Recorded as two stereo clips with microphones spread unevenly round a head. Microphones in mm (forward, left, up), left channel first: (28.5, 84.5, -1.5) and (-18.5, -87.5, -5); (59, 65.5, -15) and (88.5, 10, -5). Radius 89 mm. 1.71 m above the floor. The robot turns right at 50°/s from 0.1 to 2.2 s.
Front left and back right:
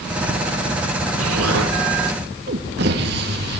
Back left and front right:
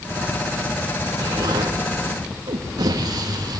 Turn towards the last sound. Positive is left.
turn(degrees=-70)